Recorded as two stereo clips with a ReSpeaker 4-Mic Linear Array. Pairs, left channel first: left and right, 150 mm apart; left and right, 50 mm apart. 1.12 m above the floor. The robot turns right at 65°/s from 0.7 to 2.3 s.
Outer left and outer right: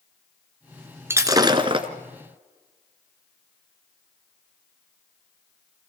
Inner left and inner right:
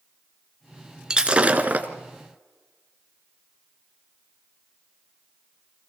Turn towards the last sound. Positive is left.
turn(degrees=-75)